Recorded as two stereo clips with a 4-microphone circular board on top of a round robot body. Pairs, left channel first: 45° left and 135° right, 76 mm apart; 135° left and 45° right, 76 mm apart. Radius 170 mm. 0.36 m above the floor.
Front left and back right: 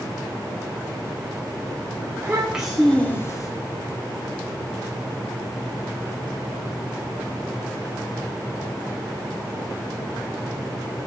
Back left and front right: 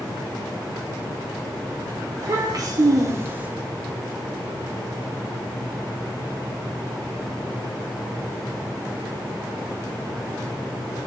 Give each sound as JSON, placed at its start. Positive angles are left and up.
{"t": 2.2, "sound": "a child speaking", "azimuth_deg": -70, "distance_m": 1.3}